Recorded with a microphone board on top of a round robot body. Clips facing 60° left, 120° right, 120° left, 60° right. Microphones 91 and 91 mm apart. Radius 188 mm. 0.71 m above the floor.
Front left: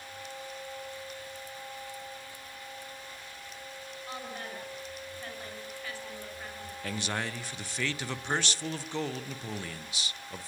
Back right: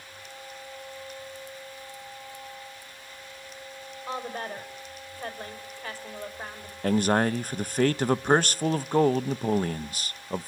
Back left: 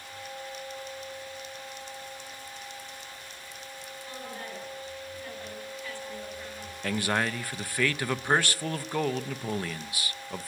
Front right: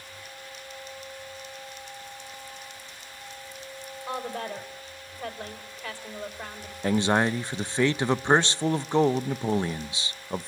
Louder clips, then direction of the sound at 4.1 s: Back right 8 dB, front right 9 dB; 70° right.